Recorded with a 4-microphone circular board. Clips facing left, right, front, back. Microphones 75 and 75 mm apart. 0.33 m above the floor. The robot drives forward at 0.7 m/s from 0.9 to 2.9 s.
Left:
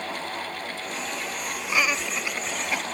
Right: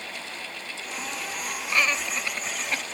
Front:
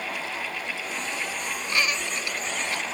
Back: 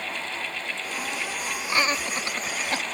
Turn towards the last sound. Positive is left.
turn(degrees=170)